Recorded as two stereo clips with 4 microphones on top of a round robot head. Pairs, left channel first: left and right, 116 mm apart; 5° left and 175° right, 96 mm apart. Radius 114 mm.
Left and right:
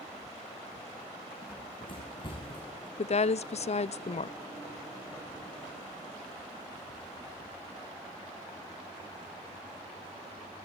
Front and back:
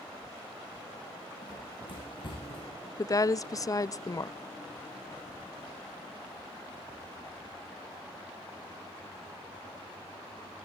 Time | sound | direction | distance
1.4 | running footsteps | 45° left | 6.5 m
3.0 | a woman speaking | 60° left | 0.7 m